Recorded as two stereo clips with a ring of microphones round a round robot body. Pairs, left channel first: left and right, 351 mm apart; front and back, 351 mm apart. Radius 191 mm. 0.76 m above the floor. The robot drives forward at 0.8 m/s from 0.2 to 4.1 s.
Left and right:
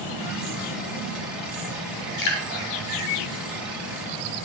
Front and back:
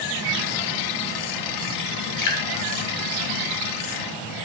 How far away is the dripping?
About 1.3 m.